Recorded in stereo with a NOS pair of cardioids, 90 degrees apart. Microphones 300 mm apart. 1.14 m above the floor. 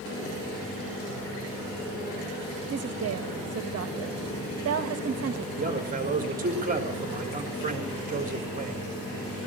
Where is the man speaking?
25° right, 4 m.